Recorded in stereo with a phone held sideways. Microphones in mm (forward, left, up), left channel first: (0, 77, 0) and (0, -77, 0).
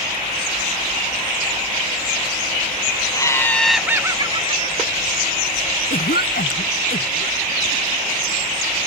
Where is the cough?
85° left.